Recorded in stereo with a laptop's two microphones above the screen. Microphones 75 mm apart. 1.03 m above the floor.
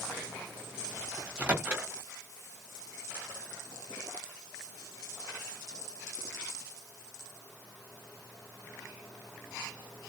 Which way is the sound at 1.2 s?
20° right (ahead or behind).